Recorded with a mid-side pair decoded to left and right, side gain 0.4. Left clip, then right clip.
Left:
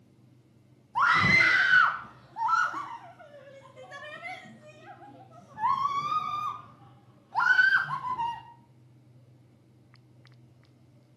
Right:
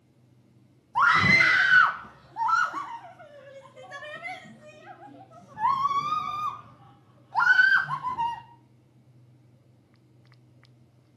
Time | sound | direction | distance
0.9 | a scream | 25° right | 1.5 m